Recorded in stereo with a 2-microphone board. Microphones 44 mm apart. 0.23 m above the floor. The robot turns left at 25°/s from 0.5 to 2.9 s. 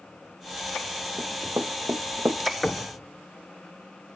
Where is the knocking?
15° left (ahead or behind), 2.5 m; by 3.0 s 20° left (ahead or behind), 2.5 m.